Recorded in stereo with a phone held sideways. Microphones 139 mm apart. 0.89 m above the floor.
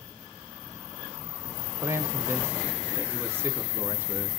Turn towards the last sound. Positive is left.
turn(degrees=-15)  # may be behind; listen again after turning